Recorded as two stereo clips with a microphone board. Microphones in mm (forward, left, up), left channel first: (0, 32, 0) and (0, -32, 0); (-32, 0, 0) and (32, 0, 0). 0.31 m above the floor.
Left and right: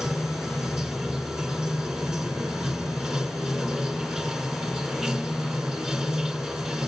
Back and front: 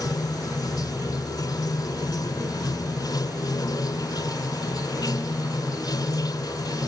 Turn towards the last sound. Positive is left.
turn(degrees=-175)